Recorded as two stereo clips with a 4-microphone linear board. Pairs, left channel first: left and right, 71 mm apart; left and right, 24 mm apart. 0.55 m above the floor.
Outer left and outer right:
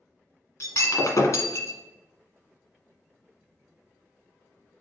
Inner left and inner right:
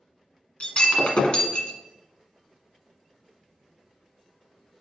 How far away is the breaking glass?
About 1.4 m.